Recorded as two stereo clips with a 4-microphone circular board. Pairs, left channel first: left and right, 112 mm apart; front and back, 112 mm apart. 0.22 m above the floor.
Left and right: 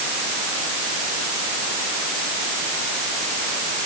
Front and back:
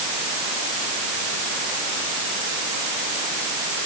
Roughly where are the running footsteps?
No running footsteps in this recording.